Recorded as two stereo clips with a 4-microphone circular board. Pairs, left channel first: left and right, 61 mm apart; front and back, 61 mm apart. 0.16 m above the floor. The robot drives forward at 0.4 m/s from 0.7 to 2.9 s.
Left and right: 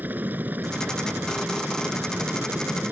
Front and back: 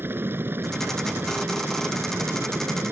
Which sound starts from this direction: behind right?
A helicopter, at 0.0 s.